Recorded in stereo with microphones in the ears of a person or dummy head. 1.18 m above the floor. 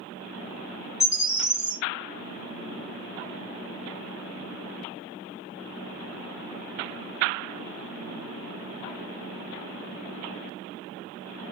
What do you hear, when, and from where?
1.0 s a bird: 20° left (ahead or behind), 0.9 m